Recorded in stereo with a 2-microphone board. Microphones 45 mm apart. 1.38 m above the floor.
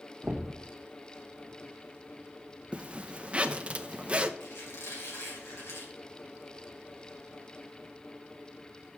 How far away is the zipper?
About 0.5 m.